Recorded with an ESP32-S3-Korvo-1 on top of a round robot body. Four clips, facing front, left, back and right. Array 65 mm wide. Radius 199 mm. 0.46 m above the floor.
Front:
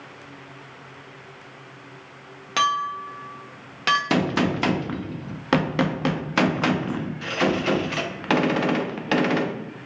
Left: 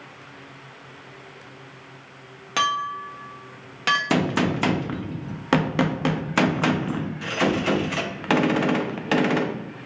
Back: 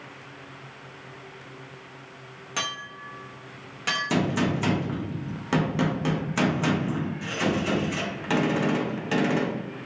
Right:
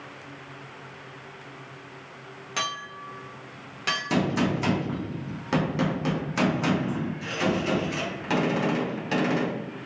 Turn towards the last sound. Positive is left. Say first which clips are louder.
# left 3 dB, front 3 dB
turn(degrees=50)